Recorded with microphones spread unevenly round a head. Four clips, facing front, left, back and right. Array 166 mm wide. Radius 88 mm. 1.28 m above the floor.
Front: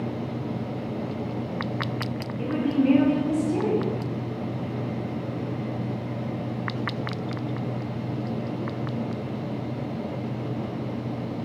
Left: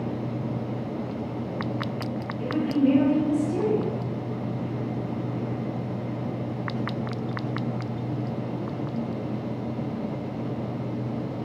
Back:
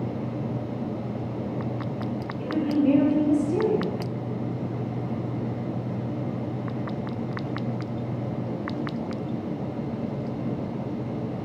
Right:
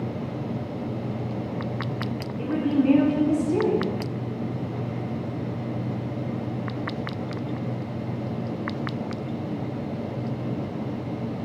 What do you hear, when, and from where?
2.4 s a woman speaking: 50° right, 2.0 m